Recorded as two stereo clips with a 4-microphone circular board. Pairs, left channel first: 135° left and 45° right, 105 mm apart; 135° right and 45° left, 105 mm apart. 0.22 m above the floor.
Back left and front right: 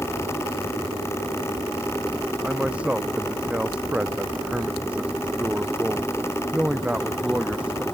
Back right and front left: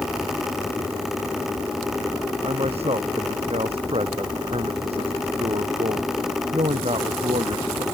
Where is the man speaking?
35° left.